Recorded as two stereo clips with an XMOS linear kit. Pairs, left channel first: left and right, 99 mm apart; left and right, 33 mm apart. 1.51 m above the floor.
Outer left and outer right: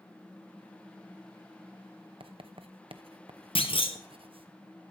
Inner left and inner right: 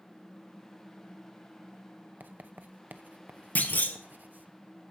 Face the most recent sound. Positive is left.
turn(degrees=75)  # may be behind; listen again after turning